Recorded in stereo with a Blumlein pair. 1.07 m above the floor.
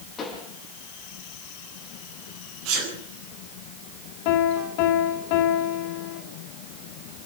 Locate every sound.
0.2 s a pop: 25° left, 6.5 m
2.6 s a sneeze: 50° right, 7.5 m
4.2 s a piano: 45° left, 2.5 m